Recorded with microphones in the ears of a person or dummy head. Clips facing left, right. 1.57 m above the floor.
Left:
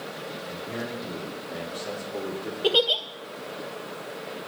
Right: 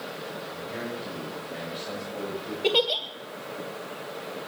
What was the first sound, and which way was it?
A man speaking, 60° left (ahead or behind).